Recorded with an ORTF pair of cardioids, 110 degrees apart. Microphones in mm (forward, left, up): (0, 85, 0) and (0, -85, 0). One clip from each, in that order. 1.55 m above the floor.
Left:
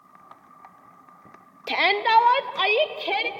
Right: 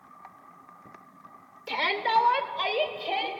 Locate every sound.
1.7 s a shout: 45° left, 1.6 m